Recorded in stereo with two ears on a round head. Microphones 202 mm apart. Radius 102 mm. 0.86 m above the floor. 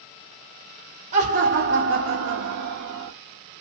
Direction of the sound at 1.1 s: 30° right (ahead or behind).